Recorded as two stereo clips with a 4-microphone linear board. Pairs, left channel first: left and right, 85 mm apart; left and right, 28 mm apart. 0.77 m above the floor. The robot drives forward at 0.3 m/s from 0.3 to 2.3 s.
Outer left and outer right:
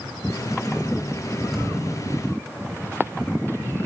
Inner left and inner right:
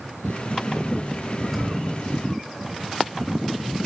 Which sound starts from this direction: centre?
A thud, at 1.5 s.